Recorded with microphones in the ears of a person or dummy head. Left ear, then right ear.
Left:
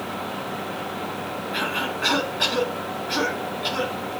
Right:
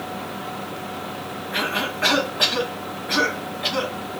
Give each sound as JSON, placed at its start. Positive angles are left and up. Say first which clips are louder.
{"t": 1.5, "sound": "a cough", "louder": "right 2 dB", "side_deg": -35, "distance_m": 2.5}